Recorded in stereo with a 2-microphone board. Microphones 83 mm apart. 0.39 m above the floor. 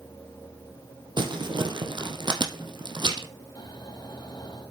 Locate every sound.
1.2 s crumpling: 70° right (ahead or behind), 3 m
3.5 s snoring: 60° left (ahead or behind), 3 m